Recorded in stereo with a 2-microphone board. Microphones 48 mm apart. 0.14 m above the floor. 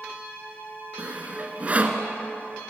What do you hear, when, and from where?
1.0 s sawing: 30° right (ahead or behind), 1.5 m